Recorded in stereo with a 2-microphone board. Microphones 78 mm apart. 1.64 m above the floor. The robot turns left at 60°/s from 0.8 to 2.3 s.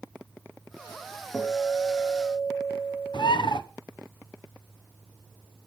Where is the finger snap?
No finger snap in this recording.